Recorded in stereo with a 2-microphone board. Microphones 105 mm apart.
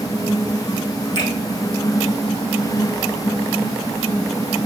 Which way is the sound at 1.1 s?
35° left (ahead or behind).